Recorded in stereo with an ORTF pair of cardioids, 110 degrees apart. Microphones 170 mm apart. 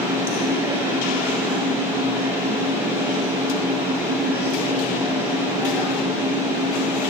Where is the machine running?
15° right, 5.5 m.